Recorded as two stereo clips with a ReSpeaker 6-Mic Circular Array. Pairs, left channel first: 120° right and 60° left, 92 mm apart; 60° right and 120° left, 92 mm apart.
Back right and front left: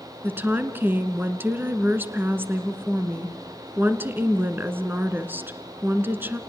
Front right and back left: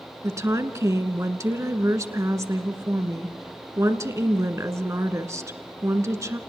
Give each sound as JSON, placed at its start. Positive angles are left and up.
{"t": 0.2, "sound": "a woman speaking", "azimuth_deg": 105, "distance_m": 1.8}